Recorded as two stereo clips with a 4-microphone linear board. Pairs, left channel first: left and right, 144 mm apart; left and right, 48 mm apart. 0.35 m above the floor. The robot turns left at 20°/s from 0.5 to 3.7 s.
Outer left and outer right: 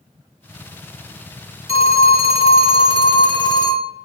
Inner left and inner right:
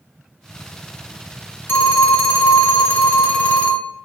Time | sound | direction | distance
1.7 | a phone ringing | 85° left | 0.7 m